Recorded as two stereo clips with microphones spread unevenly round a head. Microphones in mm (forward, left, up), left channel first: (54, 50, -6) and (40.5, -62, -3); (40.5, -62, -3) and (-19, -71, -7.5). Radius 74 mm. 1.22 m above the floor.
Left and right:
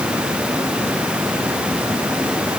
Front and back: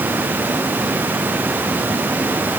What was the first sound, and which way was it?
Only background noise.